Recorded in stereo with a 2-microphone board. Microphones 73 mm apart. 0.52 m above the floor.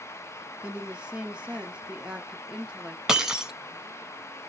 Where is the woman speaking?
15° right (ahead or behind), 0.7 m.